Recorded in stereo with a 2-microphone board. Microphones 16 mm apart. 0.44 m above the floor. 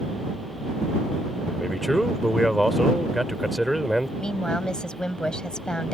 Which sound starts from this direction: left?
A woman speaking, at 4.2 s.